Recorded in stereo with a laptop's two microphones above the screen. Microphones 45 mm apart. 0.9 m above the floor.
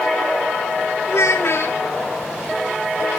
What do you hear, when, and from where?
1.1 s a child speaking: 75° left (ahead or behind), 1.3 m